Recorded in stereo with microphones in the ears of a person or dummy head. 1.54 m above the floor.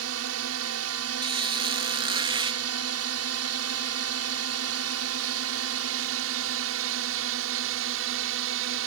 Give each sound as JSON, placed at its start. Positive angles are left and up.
{"t": 0.0, "sound": "a drone", "side_deg": -75}
{"t": 1.2, "sound": "a squeak", "side_deg": -25}